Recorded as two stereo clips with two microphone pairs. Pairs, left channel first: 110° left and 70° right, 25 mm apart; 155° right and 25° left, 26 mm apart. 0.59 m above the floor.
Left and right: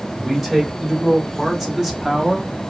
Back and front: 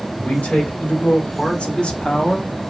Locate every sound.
0.1 s a man speaking: 145° right, 1.8 m; by 2.5 s 130° right, 0.8 m